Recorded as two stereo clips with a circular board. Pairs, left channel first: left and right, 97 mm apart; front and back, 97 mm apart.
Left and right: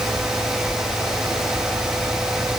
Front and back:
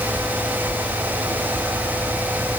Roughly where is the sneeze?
No sneeze in this recording.